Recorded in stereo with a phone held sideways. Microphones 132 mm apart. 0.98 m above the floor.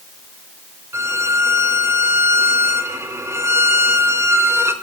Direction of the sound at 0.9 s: 20° right (ahead or behind).